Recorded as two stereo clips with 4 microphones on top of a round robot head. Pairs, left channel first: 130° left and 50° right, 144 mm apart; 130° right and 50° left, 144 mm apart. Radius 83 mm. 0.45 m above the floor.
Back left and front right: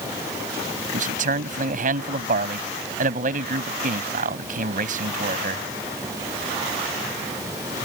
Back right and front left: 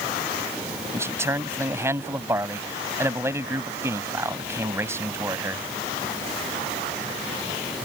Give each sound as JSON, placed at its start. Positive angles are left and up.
{"t": 0.9, "sound": "a man speaking", "azimuth_deg": -20}